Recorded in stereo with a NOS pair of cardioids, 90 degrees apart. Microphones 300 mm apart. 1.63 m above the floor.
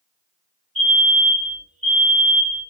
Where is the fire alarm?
60° right, 1.9 m.